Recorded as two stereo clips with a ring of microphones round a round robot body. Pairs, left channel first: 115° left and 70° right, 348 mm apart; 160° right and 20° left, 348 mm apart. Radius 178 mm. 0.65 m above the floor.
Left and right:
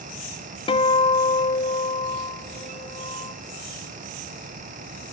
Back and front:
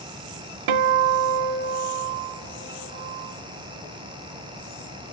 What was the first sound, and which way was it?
A guitar, 35° left.